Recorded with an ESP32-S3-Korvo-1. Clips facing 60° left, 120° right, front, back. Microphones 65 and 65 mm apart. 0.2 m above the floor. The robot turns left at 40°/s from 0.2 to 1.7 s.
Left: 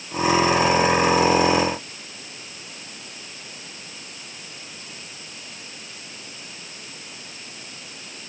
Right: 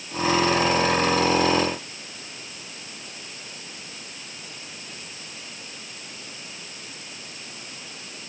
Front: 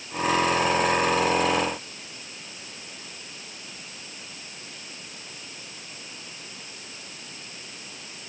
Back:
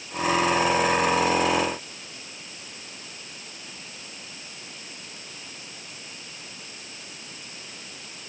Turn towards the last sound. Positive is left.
No sound to turn to.